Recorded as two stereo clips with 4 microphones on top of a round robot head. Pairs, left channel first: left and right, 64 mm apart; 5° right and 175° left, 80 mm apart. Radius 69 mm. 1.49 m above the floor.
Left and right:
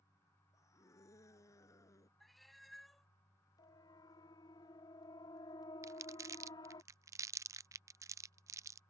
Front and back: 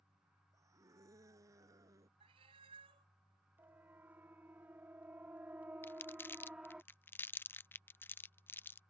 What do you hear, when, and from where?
0.5 s a scream: 130° left
2.2 s a cat meowing: straight behind
3.6 s a siren: 110° left; by 6.8 s 95° left
5.8 s crumpling: 65° right